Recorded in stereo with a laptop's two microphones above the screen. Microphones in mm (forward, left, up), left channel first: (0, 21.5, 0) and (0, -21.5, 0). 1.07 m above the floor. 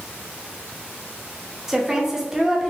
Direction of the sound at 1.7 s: 15° right (ahead or behind).